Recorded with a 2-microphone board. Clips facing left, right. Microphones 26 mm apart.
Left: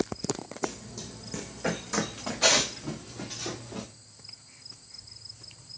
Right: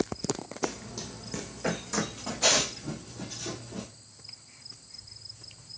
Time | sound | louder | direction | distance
0.6 | running footsteps | right 1 dB | 55° right (ahead or behind) | 0.6 m